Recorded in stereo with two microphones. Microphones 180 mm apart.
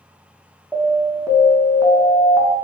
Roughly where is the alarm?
Centre.